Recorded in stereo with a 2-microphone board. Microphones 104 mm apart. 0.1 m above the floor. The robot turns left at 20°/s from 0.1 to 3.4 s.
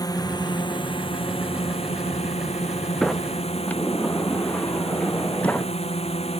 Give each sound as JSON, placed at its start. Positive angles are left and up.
{"t": 0.0, "sound": "a drone", "azimuth_deg": 145}
{"t": 3.0, "sound": "a sliding door", "side_deg": 5}